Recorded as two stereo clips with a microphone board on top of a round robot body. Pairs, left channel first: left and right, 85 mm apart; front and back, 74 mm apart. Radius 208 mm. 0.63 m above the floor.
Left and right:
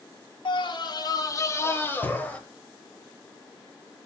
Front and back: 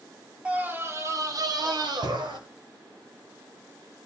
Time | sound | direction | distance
0.5 | a scream | 105° left | 2.5 m